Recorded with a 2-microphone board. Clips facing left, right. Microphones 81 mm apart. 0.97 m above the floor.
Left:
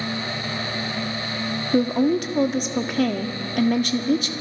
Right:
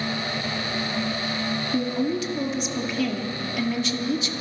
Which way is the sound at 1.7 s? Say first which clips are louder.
Left 7 dB; 55° left (ahead or behind).